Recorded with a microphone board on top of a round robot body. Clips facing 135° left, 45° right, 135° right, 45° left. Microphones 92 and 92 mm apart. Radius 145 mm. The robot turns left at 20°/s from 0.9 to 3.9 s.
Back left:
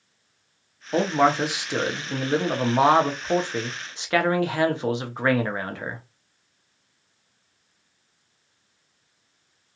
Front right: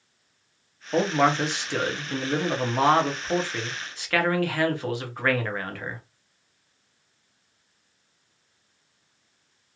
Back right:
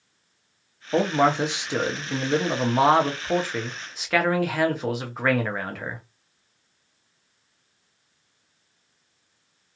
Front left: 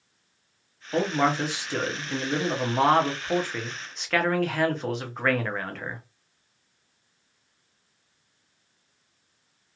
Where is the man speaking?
150° right, 0.9 m; by 6.0 s 150° left, 0.9 m.